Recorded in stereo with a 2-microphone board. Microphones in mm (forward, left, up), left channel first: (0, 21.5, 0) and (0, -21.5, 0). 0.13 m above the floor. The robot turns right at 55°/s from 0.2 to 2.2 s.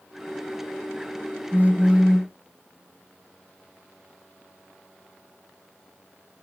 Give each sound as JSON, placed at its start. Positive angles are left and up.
{"t": 1.5, "sound": "a phone buzzing", "azimuth_deg": -50, "distance_m": 1.2}